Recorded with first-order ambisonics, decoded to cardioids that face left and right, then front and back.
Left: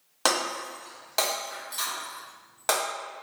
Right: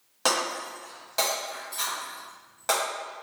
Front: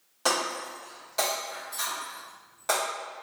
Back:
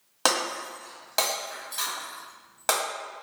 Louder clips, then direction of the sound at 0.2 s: Even, back 2 dB; 155° left.